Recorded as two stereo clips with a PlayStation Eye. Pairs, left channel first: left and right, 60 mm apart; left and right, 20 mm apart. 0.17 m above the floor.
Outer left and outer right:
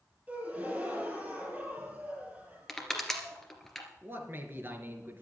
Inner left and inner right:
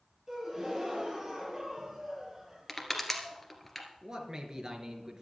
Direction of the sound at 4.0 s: 40° right (ahead or behind).